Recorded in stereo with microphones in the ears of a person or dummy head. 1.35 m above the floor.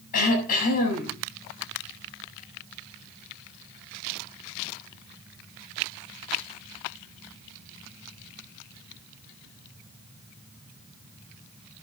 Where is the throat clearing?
45° left (ahead or behind), 8 m.